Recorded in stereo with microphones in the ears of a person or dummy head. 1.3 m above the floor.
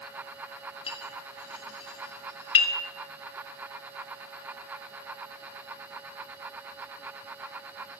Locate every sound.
0.9 s a clink: 30° left (ahead or behind), 2.5 m